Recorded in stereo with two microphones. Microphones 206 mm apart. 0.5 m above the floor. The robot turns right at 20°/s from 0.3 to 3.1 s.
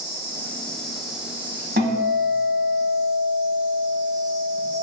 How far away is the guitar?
About 1.8 m.